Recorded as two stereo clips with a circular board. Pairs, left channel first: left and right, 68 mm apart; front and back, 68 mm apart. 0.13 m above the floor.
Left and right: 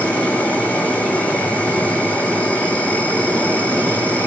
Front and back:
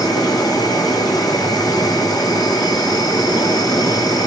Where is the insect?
20° left, 1.5 m.